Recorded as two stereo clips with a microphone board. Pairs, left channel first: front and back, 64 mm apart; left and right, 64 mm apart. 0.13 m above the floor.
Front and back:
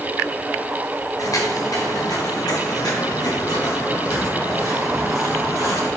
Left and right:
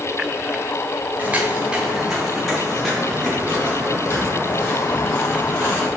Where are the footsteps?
25° right, 3 m; by 5.9 s 25° left, 8 m.